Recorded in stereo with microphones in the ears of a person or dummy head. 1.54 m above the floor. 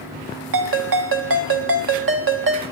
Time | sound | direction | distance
0.5 | a ringtone | 60° right (ahead or behind) | 1.0 m